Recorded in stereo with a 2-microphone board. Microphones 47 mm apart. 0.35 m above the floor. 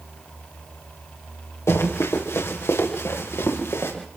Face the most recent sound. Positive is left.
turn(degrees=70)  # may be behind; listen again after turning